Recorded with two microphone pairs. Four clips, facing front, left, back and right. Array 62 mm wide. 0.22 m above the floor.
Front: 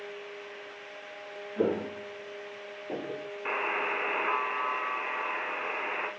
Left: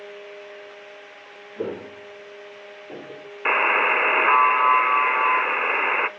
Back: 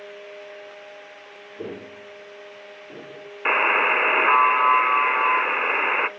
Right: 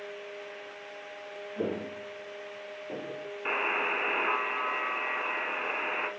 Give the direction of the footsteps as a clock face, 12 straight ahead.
11 o'clock.